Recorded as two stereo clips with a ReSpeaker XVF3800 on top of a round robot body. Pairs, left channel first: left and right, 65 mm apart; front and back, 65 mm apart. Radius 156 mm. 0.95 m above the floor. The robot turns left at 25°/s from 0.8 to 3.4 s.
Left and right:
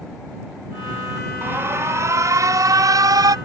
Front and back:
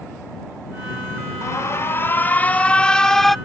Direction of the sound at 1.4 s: 35° right.